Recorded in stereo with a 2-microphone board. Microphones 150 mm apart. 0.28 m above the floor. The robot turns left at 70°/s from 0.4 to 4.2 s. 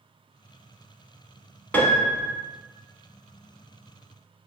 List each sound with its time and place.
1.7 s a piano: 15° left, 0.6 m; by 2.3 s 25° right, 0.6 m